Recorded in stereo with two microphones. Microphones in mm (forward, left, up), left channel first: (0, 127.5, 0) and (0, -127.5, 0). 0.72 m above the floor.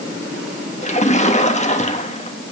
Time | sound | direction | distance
0.8 | a splash | 25° left (ahead or behind) | 1.2 m